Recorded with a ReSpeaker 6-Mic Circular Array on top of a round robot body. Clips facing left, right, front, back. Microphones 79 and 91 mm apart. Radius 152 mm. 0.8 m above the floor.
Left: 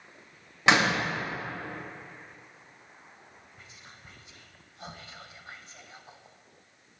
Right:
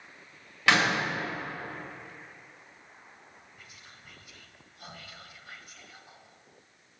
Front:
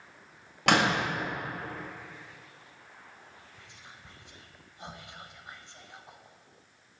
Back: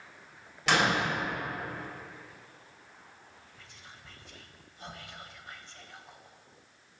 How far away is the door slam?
About 1.5 m.